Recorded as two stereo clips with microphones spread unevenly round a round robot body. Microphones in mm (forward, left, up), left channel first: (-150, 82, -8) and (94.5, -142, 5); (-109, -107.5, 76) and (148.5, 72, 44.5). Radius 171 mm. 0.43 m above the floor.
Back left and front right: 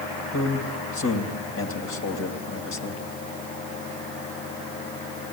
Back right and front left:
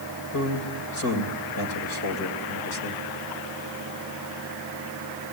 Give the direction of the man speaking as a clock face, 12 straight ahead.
6 o'clock.